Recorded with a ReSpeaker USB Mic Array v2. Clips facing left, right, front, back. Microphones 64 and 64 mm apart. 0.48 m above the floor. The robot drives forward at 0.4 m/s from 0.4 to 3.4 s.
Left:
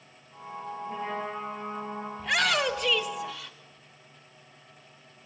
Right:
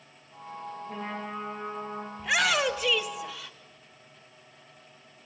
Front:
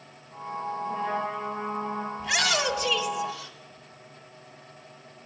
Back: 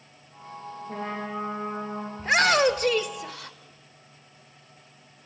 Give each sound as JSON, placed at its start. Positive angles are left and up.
{"t": 0.9, "sound": "a trumpet", "azimuth_deg": -165, "distance_m": 9.5}
{"t": 2.2, "sound": "a shout", "azimuth_deg": -170, "distance_m": 1.0}